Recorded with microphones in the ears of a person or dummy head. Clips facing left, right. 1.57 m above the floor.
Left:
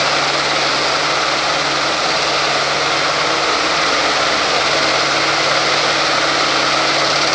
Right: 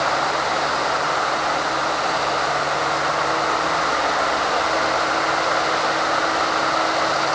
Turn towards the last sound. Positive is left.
No sound to turn to.